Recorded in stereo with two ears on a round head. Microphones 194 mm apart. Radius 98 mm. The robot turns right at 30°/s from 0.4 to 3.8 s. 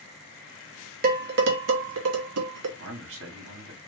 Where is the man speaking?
60° right (ahead or behind), 1.3 m; by 3.8 s 65° right (ahead or behind), 1.3 m.